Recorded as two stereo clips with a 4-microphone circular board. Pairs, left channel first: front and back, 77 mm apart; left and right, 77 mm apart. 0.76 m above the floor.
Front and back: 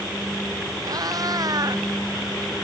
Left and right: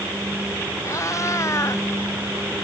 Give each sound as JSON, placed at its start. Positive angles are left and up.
{"t": 0.8, "sound": "a cat meowing", "azimuth_deg": 140}